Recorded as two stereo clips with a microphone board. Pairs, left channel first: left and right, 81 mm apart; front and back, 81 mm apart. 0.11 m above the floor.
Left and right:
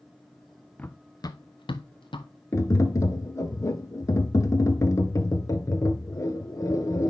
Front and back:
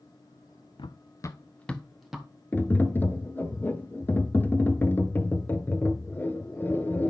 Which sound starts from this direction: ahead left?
Tapping, at 2.5 s.